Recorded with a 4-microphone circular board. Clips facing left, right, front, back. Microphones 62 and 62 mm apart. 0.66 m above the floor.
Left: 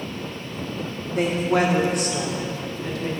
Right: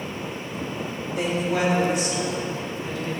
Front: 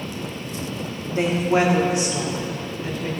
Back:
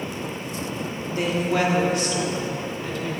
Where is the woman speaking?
55° left, 1.2 m; by 3.1 s 75° left, 2.5 m.